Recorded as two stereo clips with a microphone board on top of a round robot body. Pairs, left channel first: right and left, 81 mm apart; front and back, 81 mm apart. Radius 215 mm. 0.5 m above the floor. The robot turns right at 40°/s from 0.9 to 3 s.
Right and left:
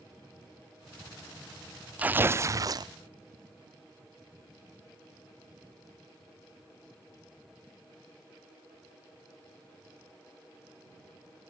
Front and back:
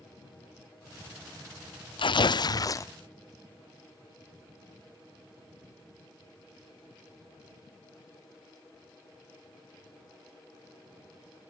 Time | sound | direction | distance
2.0 | tearing paper | 15° left | ?